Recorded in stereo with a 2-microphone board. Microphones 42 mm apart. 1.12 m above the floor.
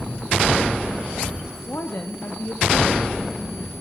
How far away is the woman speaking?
About 2 m.